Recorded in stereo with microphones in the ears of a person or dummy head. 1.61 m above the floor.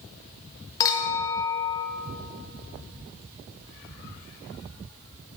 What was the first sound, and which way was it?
A clink, 20° left (ahead or behind).